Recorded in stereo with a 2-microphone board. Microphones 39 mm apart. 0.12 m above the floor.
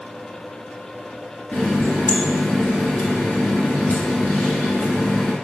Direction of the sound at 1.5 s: 45° left (ahead or behind).